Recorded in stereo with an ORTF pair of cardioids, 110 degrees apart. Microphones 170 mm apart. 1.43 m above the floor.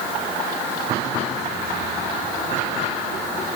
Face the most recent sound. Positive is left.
No sound to turn to.